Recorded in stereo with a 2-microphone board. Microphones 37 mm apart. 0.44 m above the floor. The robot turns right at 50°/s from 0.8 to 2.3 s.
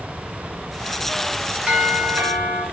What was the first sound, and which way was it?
A doorbell, 150° right.